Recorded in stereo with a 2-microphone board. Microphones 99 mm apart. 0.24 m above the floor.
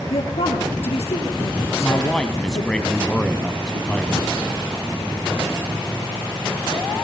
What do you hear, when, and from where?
0.1 s a woman speaking: 75° left (ahead or behind), 4.5 m
1.7 s a man speaking: 10° left (ahead or behind), 1.5 m